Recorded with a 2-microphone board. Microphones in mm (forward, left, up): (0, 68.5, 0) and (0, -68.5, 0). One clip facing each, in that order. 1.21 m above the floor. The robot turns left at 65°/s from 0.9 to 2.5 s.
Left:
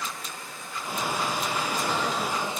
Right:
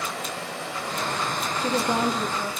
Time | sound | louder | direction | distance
0.0 | running water | right 6 dB | 100° right | 3 m
1.6 | a woman speaking | right 9 dB | 105° right | 3.5 m